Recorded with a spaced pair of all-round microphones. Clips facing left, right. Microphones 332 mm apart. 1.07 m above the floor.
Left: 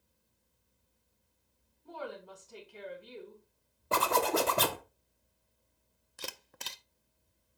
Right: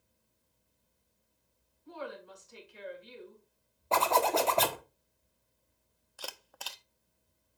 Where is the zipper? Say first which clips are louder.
Right 1 dB; 20° left (ahead or behind), 1.1 m.